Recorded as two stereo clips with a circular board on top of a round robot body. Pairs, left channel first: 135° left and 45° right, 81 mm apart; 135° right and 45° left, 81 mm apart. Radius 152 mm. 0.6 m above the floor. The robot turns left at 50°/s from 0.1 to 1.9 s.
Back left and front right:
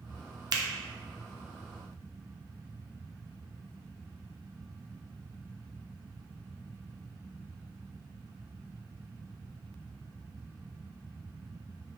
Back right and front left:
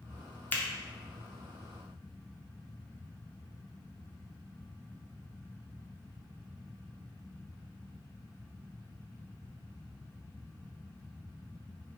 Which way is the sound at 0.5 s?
70° right.